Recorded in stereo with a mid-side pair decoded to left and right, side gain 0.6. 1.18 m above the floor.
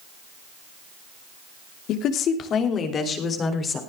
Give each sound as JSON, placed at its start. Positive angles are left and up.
{"t": 1.9, "sound": "a woman speaking", "azimuth_deg": 60, "distance_m": 2.5}